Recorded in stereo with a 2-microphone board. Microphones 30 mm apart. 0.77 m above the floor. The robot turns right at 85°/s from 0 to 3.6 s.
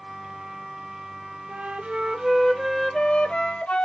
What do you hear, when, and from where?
1.5 s a flute: 90° right, 0.7 m; by 3.8 s 90° left, 0.7 m